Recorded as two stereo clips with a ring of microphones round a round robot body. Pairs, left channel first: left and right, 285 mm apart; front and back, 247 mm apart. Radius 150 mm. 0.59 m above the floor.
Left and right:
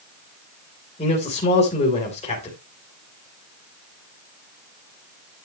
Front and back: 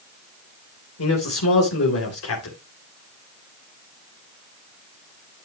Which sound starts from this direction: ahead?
A man speaking, at 1.0 s.